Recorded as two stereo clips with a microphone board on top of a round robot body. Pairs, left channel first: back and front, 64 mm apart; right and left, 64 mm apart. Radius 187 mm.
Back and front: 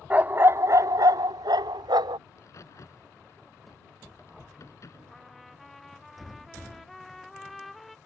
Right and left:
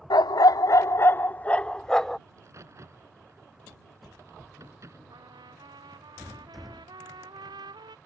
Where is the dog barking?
70° right; by 2.2 s 5° right.